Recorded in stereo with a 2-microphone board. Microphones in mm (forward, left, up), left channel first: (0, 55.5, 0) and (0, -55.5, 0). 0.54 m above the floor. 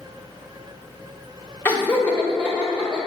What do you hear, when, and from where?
1.6 s laughter: 15° left (ahead or behind), 0.6 m; by 3.0 s 5° left (ahead or behind), 2.0 m